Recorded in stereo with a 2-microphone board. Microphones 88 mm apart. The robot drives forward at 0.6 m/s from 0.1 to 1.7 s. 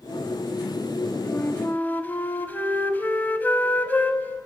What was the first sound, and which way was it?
A flute, 25° left (ahead or behind).